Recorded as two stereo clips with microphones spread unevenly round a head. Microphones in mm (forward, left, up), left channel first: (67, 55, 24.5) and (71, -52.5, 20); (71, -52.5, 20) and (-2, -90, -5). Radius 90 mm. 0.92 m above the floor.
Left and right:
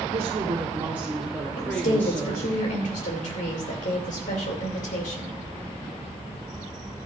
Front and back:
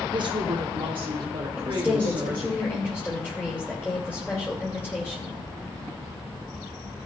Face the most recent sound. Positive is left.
turn(degrees=110)